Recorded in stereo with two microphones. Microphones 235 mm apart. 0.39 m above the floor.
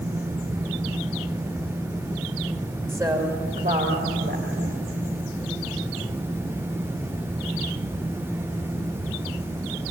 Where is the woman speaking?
10° right (ahead or behind), 1.9 m; by 4.8 s 60° right (ahead or behind), 2.5 m.